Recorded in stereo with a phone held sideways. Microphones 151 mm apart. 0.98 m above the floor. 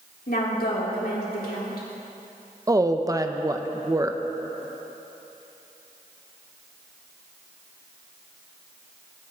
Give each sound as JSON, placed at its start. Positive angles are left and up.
{"t": 0.3, "sound": "a woman speaking", "side_deg": 75, "distance_m": 3.5}
{"t": 2.7, "sound": "a woman speaking", "side_deg": -25, "distance_m": 0.7}